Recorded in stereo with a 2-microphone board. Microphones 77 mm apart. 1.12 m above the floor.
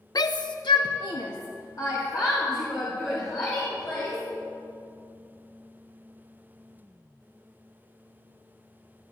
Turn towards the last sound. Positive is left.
turn(degrees=50)  # may be behind; listen again after turning